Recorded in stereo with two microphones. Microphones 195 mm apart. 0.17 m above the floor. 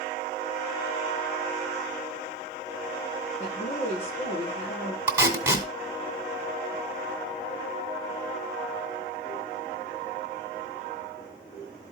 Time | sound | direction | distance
3.4 | a woman speaking | 40° left (ahead or behind) | 7 m
5.1 | tape being pulled | 10° right (ahead or behind) | 1.6 m